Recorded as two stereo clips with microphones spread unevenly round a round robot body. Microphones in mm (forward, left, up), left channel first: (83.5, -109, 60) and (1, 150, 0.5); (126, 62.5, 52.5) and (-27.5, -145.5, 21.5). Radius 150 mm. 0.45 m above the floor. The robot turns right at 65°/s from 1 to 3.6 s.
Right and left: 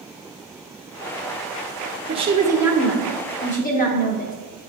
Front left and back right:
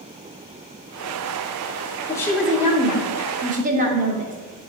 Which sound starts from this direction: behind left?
A woman speaking, at 2.1 s.